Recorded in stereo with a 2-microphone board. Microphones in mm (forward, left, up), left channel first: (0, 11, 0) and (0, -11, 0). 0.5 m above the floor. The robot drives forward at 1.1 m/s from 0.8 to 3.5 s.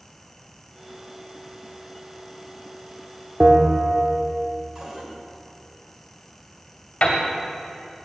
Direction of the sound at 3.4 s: 40° right (ahead or behind).